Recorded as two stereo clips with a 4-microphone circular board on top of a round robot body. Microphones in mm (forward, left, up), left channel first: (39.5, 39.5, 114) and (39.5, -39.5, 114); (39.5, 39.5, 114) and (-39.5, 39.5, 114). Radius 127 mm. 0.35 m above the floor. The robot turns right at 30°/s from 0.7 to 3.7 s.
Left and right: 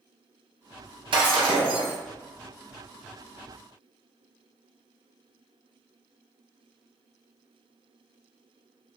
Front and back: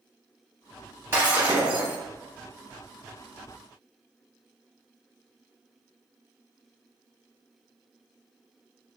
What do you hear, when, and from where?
1.1 s breaking glass: 115° right, 0.6 m; by 1.9 s 90° right, 0.6 m